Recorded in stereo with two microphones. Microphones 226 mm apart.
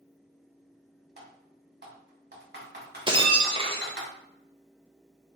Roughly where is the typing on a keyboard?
Right.